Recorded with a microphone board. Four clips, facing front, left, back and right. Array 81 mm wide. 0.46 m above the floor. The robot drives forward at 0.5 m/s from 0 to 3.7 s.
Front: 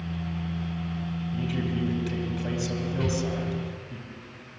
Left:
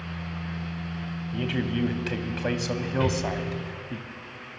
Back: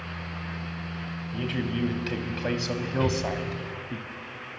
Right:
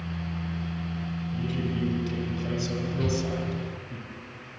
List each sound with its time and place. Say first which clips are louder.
1.3 s a man speaking: left 4 dB, back 1 dB; 105° left, 2.5 m; by 4.0 s 130° left, 3 m
3.0 s an explosion: left 2 dB, back 2 dB; 105° left, 1.7 m; by 4.1 s 115° left, 1.8 m